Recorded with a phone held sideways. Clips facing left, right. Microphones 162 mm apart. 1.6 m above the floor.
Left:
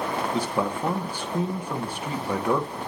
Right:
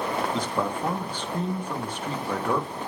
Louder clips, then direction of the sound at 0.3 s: Left 1 dB; 10° left (ahead or behind).